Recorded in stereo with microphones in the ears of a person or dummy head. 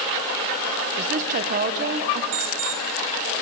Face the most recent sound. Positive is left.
turn(degrees=-40)  # may be behind; listen again after turning